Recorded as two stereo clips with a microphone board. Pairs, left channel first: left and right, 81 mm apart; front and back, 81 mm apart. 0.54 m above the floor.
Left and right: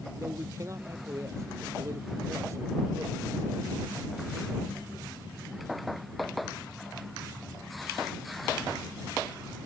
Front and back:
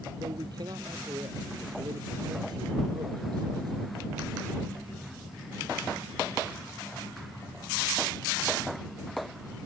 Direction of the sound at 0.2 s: 140° right.